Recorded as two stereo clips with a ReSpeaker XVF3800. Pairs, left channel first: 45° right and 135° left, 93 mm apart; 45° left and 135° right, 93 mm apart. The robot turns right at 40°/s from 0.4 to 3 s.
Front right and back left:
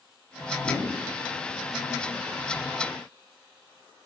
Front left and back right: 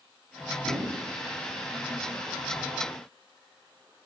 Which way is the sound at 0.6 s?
95° right.